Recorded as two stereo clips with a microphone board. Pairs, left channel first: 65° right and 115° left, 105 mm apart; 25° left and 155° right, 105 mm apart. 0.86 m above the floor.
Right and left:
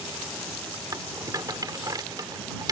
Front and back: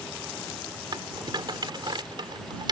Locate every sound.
0.9 s a rattle: 165° left